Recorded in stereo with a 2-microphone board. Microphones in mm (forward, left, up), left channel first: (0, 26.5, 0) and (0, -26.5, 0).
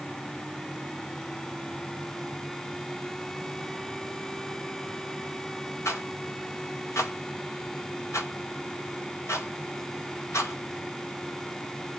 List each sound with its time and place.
5.8 s a rattle: 65° left (ahead or behind), 2.5 m